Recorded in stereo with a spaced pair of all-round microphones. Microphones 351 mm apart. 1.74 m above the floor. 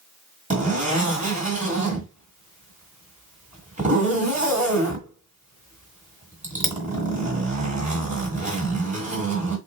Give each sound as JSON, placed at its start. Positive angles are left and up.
{"t": 0.5, "sound": "a zipper", "side_deg": -20, "distance_m": 1.8}